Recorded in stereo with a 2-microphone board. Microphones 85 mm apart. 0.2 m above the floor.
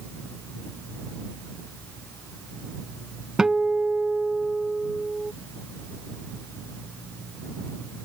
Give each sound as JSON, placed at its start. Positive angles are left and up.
{"t": 3.4, "sound": "a guitar", "side_deg": -5}